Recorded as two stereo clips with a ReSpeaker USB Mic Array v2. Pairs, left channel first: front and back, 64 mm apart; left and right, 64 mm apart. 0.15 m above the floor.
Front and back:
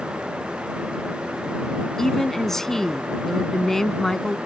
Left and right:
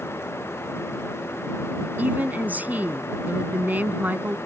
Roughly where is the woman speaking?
Right.